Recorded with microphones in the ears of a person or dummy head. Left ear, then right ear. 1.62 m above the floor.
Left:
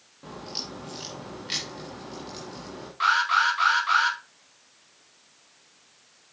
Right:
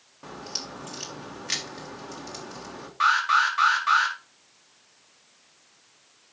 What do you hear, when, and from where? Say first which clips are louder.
0.2 s a crack: right 1 dB; 40° right (ahead or behind), 1.7 m
3.0 s an alarm: right 1 dB; 30° right (ahead or behind), 3 m